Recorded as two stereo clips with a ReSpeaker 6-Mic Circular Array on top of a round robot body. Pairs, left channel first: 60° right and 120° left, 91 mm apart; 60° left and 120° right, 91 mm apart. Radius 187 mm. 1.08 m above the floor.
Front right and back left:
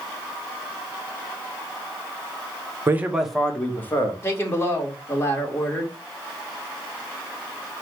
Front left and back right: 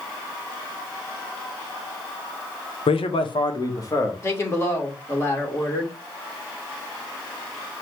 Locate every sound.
2.9 s a man speaking: 55° left, 0.9 m; by 4.1 s straight ahead, 1.5 m
4.2 s a woman speaking: straight ahead, 2 m